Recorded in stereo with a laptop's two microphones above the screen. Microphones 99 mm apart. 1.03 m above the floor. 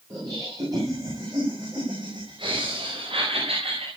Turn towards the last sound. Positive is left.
turn(degrees=-80)